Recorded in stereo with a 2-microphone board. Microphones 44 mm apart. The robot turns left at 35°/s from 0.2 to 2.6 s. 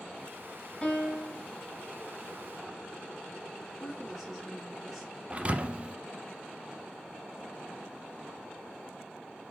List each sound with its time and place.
0.8 s a piano: 20° left (ahead or behind), 1.6 m; by 1.5 s 30° left (ahead or behind), 1.6 m
3.8 s a woman speaking: centre (ahead or behind), 2.5 m
5.3 s a thud: 30° right (ahead or behind), 0.5 m